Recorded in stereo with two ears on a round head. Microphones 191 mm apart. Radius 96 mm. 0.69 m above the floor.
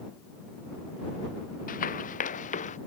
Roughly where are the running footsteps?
Left.